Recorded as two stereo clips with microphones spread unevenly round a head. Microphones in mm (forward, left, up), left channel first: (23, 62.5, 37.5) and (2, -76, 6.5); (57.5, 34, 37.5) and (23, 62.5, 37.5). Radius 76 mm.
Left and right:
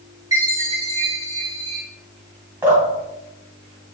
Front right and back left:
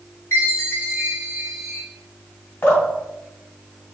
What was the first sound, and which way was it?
A chime, 25° right.